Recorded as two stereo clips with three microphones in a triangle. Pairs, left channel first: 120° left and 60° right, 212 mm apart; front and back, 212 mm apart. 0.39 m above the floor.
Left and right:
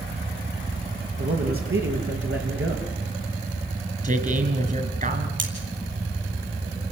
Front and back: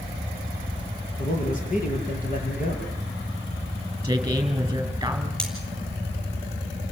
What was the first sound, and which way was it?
A man speaking, 50° right.